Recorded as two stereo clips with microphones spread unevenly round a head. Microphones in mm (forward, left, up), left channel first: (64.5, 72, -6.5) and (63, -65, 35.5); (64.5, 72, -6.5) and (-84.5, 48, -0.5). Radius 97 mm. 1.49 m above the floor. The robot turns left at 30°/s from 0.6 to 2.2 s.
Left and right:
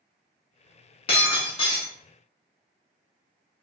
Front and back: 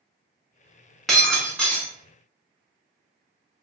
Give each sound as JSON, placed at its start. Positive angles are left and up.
{"t": 1.1, "sound": "breaking glass", "azimuth_deg": 100, "distance_m": 1.4}